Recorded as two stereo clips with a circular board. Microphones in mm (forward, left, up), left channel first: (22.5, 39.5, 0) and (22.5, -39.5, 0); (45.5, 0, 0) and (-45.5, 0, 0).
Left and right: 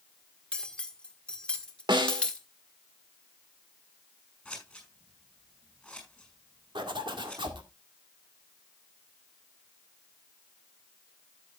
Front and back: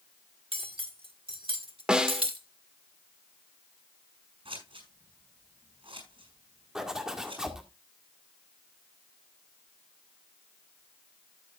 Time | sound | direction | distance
0.5 | cutlery clinking | 165° left | 1.5 m
1.9 | a snare drum | 100° right | 1.6 m
4.5 | scissors | 170° left | 5.5 m
6.8 | a zipper | 95° right | 1.8 m